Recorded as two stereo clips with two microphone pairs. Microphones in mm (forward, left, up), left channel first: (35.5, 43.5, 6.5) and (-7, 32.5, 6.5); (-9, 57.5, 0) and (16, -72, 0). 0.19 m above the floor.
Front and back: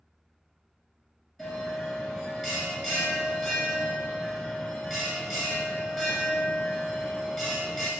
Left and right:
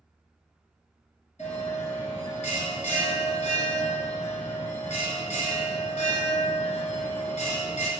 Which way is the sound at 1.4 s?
110° left.